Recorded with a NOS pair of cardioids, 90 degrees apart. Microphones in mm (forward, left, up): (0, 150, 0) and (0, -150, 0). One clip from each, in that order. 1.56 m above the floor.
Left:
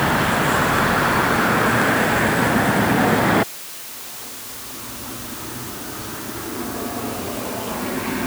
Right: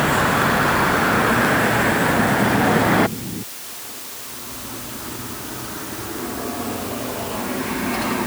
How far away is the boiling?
No boiling in this recording.